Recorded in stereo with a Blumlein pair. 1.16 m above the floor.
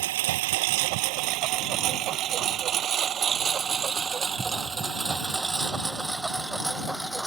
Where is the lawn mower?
55° right; by 7.3 s straight ahead.